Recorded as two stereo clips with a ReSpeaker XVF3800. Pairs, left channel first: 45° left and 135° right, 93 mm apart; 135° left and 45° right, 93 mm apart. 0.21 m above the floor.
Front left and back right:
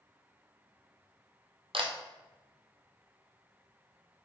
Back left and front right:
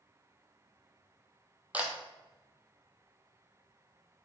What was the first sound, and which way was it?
A camera shutter, 120° right.